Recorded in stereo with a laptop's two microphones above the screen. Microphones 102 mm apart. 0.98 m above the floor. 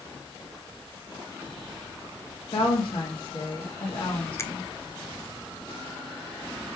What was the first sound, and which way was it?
A woman speaking, 60° left (ahead or behind).